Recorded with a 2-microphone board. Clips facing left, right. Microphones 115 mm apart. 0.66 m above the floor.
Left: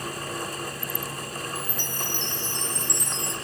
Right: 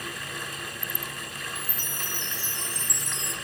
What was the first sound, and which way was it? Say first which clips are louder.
A chime: left 5 dB; 5° right (ahead or behind).